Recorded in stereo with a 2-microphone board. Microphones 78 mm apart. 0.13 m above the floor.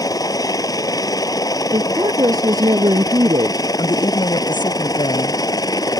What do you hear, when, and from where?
0.0 s a helicopter: 50° left (ahead or behind); by 6.0 s 55° left (ahead or behind)
1.7 s a woman speaking: 55° right (ahead or behind)
3.8 s a woman speaking: 80° left